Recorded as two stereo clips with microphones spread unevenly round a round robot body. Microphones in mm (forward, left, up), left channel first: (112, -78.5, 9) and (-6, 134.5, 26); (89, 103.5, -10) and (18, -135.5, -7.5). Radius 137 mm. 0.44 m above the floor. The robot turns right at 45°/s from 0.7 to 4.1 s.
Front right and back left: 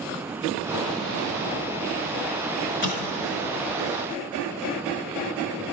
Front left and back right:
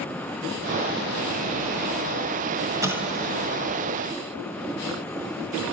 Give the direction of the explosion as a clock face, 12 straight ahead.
1 o'clock.